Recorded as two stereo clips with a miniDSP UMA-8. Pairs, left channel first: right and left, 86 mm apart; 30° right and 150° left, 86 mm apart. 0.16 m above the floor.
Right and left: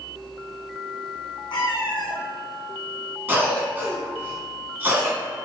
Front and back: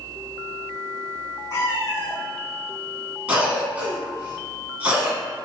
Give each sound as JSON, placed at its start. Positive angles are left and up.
{"t": 1.5, "sound": "a cat meowing", "azimuth_deg": -85, "distance_m": 1.2}
{"t": 3.3, "sound": "a cough", "azimuth_deg": 110, "distance_m": 1.3}